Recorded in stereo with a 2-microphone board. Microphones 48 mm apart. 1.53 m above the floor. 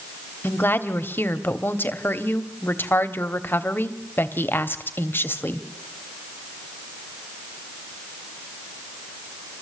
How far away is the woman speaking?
About 1.2 m.